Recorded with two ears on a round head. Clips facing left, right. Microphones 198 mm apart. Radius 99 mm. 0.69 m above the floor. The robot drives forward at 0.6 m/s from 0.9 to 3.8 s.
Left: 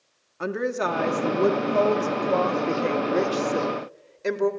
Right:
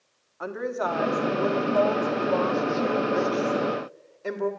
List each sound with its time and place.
0.4 s a woman speaking: 35° left (ahead or behind), 1.3 m; by 4.5 s 30° left (ahead or behind), 1.5 m